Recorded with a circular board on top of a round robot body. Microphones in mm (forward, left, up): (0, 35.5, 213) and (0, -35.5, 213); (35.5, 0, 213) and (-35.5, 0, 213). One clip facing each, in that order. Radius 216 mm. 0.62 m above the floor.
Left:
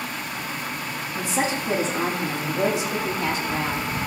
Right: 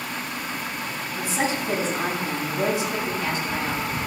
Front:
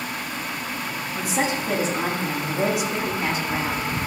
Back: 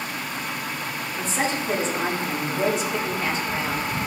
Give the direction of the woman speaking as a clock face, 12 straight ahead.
9 o'clock.